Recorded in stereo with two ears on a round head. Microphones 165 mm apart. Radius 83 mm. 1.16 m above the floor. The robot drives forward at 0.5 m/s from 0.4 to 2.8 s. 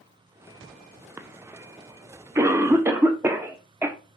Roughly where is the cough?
Centre.